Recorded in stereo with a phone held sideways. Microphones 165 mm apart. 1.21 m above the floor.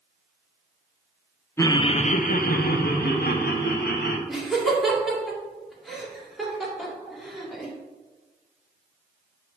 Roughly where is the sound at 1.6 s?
Centre.